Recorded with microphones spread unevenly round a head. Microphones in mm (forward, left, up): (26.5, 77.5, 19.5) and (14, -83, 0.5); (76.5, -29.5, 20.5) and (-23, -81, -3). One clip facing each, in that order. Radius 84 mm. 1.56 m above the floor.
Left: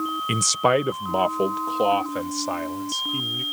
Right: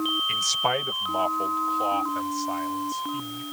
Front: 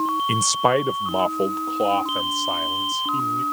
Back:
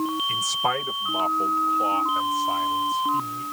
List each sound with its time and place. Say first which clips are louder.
0.3 s a man speaking: left 12 dB, front 7 dB; 55° left; by 3.4 s 70° left